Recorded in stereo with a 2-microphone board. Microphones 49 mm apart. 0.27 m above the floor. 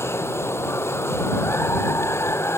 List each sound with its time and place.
0.0 s running water: 60° left (ahead or behind)